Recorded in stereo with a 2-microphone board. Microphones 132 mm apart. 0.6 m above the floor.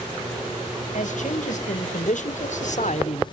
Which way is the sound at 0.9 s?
65° left (ahead or behind).